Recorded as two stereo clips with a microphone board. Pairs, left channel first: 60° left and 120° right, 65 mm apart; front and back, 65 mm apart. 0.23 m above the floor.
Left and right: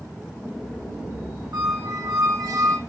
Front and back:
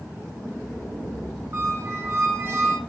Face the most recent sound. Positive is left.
turn(degrees=-135)